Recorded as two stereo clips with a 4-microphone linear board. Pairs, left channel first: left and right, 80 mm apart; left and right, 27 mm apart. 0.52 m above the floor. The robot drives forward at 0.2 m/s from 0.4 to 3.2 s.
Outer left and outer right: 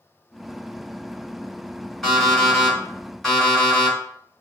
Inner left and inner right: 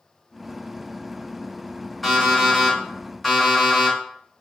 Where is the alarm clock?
Centre (ahead or behind), 1.4 m.